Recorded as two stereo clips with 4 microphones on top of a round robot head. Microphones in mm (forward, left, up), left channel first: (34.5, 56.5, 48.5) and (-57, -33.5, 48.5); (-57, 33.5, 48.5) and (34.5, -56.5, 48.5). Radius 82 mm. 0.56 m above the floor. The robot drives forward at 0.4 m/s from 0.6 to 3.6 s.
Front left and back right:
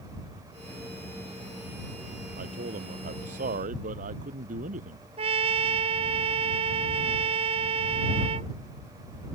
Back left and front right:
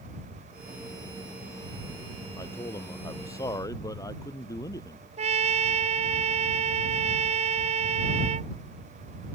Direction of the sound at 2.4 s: 160° right.